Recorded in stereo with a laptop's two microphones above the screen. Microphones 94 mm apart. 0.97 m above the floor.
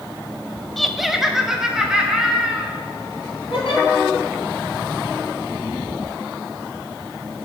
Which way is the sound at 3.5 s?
75° left (ahead or behind).